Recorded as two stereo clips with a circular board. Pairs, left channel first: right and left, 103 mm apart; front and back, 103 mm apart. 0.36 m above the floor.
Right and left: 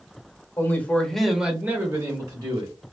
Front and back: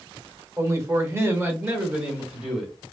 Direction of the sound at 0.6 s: 140° right.